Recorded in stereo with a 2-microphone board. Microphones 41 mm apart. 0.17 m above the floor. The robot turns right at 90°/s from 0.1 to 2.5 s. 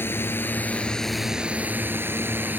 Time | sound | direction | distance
0.0 | a drone | 85° left | ?